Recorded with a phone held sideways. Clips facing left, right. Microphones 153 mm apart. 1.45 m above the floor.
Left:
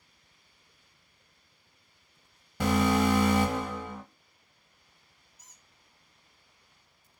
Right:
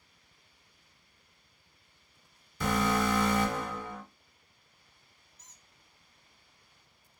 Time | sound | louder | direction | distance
2.6 | an alarm | left 4 dB | 65° left (ahead or behind) | 1.4 m
5.4 | a squeak | even | 10° left (ahead or behind) | 0.6 m